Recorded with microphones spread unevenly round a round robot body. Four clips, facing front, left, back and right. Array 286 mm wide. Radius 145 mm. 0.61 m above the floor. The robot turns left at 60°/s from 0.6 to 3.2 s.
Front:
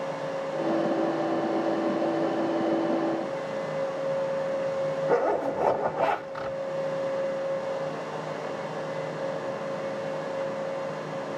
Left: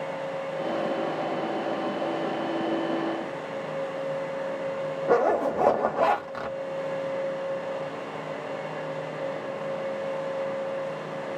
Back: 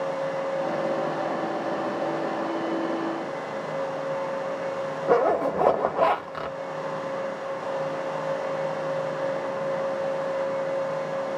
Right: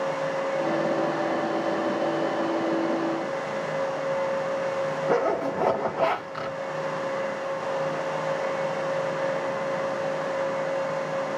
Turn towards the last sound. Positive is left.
turn(degrees=155)